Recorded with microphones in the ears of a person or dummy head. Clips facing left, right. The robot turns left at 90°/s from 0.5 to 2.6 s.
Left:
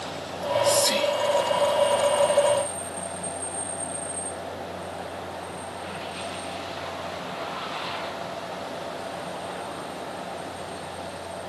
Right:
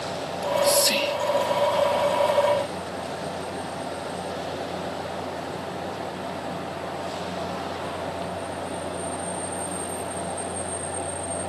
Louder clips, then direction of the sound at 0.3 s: Right 1 dB; 5° right (ahead or behind).